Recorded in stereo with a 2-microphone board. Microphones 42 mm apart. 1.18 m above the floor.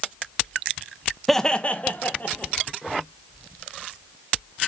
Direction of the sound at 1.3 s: 5° left (ahead or behind).